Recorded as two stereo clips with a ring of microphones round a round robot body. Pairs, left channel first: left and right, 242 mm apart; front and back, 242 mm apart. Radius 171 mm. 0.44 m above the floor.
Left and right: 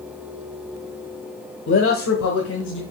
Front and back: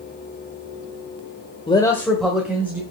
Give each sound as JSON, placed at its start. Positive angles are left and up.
{"t": 1.7, "sound": "a man speaking", "azimuth_deg": 65, "distance_m": 1.3}